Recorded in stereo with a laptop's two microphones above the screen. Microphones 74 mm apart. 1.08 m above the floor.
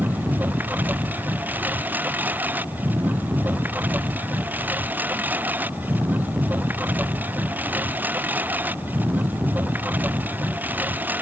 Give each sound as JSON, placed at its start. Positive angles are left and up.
{"t": 0.0, "sound": "a lawn mower", "side_deg": -25}